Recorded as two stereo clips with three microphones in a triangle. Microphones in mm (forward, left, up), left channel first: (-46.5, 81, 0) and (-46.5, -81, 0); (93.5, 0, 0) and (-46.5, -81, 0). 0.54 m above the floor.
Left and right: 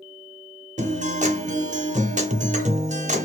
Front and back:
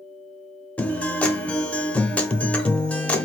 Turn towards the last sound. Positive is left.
turn(degrees=-50)